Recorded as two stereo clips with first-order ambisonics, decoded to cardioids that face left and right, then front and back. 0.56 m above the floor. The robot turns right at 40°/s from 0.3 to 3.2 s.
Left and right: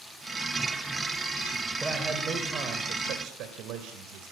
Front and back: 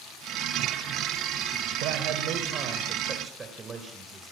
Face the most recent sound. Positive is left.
turn(degrees=-115)